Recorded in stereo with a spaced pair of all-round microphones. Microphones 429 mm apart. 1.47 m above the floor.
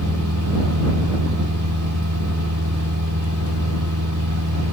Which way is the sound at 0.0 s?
45° right (ahead or behind).